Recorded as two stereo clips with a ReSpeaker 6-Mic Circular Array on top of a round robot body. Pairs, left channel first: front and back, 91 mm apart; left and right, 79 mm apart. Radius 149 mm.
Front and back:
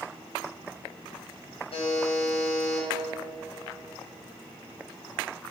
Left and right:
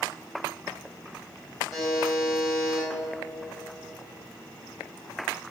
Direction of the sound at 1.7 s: Straight ahead.